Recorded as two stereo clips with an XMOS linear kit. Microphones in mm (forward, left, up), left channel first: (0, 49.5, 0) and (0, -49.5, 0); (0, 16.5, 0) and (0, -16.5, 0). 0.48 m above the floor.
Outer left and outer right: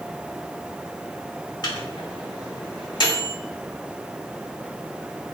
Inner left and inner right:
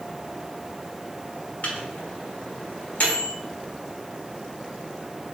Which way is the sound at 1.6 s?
45° left (ahead or behind).